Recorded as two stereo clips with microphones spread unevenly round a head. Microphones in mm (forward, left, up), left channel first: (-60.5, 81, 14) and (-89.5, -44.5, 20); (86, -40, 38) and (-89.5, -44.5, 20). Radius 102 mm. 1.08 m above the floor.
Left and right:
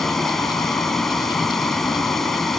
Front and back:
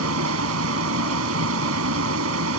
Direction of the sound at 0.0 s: 165° left.